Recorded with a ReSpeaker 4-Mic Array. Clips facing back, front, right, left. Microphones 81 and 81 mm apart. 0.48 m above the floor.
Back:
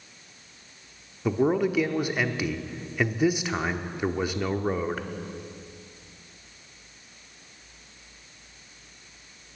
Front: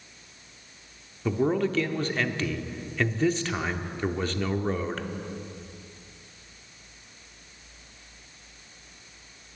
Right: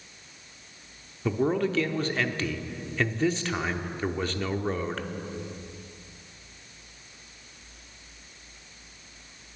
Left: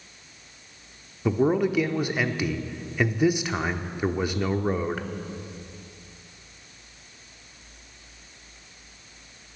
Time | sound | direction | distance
1.2 | a man speaking | 135° left | 0.8 m